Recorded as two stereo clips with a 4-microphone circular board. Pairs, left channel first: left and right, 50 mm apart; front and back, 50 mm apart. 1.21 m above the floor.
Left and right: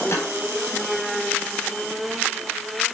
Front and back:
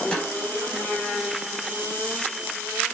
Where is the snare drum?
70° left, 4.5 m.